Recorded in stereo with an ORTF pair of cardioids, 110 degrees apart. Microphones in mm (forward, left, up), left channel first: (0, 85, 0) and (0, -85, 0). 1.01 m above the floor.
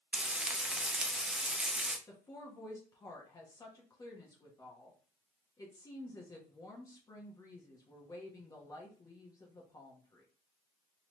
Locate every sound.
0.1 s frying: 5° right, 0.6 m
2.1 s a woman speaking: 20° left, 1.1 m